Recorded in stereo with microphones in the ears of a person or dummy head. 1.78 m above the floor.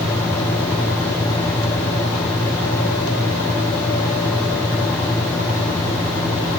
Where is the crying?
I don't hear crying.